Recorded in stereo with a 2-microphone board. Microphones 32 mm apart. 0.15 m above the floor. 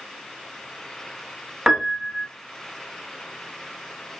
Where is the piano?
15° right (ahead or behind), 0.7 m.